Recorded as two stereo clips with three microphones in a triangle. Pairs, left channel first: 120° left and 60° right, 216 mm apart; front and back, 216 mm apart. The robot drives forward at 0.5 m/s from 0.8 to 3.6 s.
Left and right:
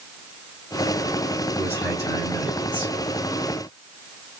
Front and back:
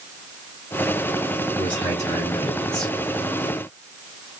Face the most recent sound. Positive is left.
turn(degrees=115)